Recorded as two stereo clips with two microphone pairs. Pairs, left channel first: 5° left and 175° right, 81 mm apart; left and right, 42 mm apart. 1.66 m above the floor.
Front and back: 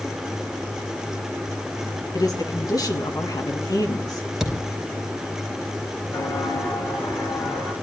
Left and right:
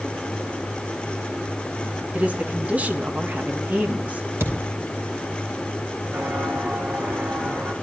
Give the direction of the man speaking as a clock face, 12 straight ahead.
1 o'clock.